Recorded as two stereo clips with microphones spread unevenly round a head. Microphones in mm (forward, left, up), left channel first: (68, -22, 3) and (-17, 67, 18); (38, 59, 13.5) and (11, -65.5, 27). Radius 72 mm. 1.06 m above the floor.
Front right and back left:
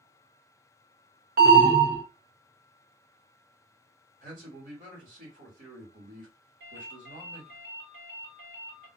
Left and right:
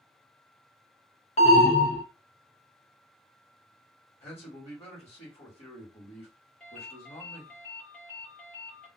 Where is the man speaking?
120° left, 1.8 m.